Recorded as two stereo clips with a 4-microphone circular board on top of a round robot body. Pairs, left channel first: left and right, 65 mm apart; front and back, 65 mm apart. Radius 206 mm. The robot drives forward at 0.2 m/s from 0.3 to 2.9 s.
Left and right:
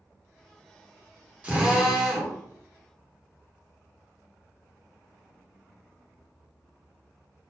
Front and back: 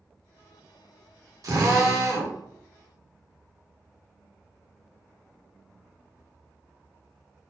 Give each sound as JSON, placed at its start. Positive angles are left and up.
{"t": 1.4, "sound": "a drill", "azimuth_deg": -160, "distance_m": 1.0}